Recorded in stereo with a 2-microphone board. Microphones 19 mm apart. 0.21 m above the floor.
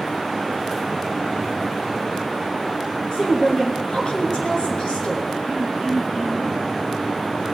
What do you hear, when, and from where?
3.1 s a woman speaking: 60° left (ahead or behind), 3 m
5.5 s throat clearing: 65° left (ahead or behind), 3 m